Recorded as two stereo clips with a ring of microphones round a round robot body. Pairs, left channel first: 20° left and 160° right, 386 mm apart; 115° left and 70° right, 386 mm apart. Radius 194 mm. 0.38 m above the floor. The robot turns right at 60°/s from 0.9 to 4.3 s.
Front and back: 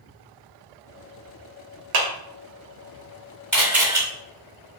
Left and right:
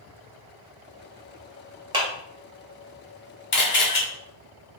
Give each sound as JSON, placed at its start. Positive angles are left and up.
{"t": 1.9, "sound": "a clap", "azimuth_deg": -145, "distance_m": 1.0}
{"t": 3.5, "sound": "a camera shutter", "azimuth_deg": 105, "distance_m": 1.5}